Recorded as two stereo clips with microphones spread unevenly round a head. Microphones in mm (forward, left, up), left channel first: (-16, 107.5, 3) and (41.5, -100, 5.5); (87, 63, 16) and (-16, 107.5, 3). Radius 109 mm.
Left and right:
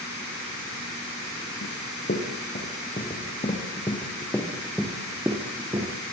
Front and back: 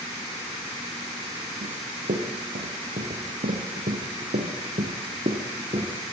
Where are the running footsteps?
155° left, 6 m; by 5.9 s 145° right, 4.5 m.